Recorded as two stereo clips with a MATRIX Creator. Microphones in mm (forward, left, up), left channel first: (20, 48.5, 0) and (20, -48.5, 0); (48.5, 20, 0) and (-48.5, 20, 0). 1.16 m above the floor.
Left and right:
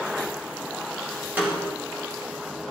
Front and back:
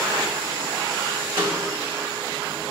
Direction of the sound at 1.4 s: 160° right.